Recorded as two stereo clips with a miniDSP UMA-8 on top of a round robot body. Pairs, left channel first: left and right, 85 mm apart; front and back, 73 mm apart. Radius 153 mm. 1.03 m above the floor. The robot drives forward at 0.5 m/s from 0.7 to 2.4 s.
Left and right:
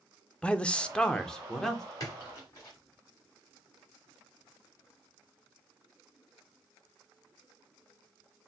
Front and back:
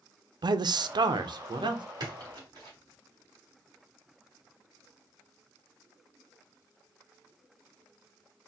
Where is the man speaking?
165° left, 0.5 m; by 1.8 s 175° left, 1.1 m.